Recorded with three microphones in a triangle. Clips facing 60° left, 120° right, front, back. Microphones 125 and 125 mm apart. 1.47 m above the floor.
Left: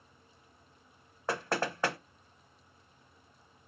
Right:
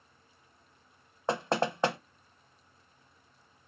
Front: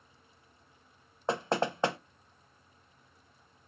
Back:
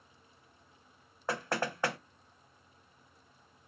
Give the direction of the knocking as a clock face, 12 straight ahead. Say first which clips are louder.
Right 4 dB, front 4 dB; 2 o'clock.